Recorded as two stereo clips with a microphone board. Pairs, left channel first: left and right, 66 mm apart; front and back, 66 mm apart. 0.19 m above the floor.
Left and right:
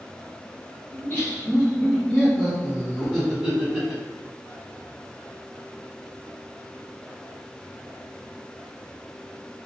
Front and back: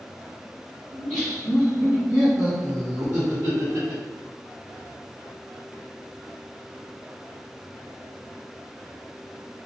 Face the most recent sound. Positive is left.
turn(degrees=-170)